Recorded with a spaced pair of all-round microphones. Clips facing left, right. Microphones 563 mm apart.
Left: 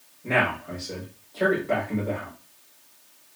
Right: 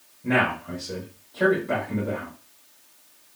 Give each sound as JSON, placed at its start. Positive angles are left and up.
{"t": 0.2, "sound": "a man speaking", "side_deg": -40, "distance_m": 1.1}